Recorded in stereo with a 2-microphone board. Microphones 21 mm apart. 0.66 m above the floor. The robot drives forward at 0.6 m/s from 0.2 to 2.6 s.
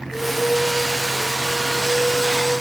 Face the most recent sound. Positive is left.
No sound to turn to.